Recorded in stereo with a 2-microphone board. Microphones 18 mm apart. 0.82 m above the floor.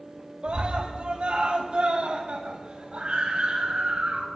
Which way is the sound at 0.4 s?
75° right (ahead or behind).